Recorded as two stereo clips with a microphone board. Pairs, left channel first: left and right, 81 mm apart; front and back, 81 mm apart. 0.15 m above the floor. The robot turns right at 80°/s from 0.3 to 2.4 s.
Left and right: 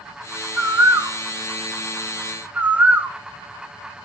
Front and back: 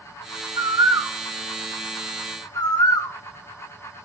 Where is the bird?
170° right, 1.0 m; by 3.2 s 25° right, 1.0 m.